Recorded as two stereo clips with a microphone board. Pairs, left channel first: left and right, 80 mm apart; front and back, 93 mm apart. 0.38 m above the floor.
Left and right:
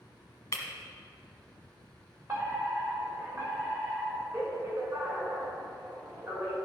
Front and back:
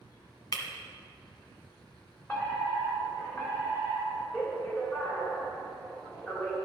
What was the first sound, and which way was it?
Breaking glass, 40° left.